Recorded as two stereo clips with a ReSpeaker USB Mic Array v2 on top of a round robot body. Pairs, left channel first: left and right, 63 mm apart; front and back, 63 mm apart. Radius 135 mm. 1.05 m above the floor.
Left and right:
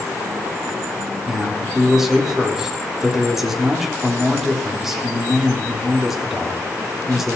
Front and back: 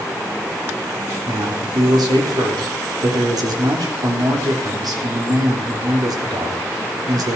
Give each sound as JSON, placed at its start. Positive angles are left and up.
{"t": 1.3, "sound": "a man speaking", "azimuth_deg": -175, "distance_m": 3.0}